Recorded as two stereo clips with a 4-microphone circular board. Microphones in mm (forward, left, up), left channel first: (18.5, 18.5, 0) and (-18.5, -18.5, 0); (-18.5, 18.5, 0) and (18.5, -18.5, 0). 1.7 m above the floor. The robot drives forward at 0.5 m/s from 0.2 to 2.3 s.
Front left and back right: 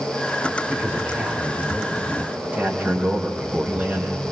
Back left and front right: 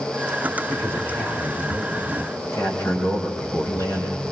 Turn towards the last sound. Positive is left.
turn(degrees=165)